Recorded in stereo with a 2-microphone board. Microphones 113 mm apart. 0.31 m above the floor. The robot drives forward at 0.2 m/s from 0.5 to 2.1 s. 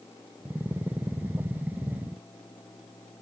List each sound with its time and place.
Only background noise.